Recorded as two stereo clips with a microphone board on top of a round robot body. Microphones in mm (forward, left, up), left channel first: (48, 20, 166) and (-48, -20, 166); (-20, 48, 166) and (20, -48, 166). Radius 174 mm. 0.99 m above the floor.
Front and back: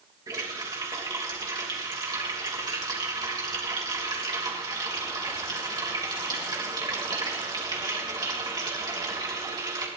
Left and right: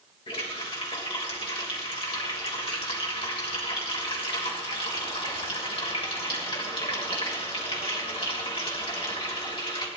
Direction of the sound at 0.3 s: 150° left.